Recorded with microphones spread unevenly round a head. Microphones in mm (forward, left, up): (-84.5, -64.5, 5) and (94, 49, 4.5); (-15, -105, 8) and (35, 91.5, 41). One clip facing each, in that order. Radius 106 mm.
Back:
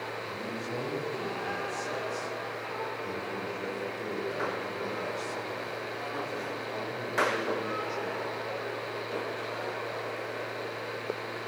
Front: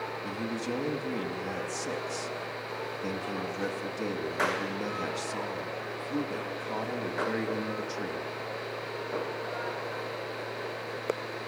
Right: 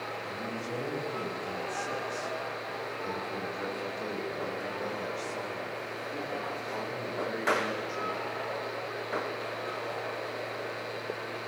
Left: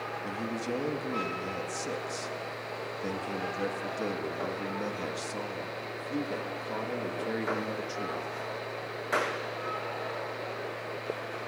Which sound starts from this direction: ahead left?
A man speaking, at 0.2 s.